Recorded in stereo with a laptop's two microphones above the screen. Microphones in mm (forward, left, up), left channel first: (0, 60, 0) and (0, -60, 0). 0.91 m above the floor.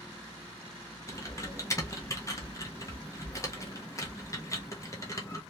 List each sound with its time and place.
1.1 s typing on a keyboard: 30° left (ahead or behind), 0.8 m